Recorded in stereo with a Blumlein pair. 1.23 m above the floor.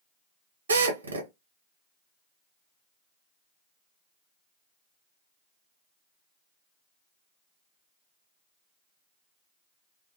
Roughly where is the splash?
No splash in this recording.